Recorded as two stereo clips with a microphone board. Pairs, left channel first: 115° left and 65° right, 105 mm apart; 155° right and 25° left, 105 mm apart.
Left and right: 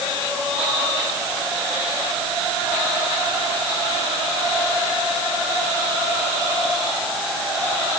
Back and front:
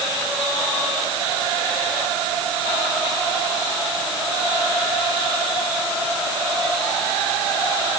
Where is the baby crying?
I don't hear a baby crying.